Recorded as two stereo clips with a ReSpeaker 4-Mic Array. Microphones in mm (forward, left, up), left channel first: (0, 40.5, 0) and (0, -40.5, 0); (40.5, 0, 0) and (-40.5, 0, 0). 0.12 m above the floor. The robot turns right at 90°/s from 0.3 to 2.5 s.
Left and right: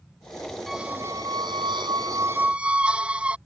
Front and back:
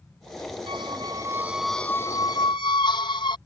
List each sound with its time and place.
0.7 s a squeak: straight behind; by 3.4 s 15° right